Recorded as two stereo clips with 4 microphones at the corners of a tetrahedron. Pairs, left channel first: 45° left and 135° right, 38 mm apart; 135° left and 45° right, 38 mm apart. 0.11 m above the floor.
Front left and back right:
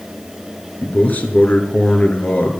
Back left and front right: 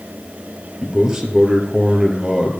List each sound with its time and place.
0.8 s a man speaking: 20° left, 2.5 m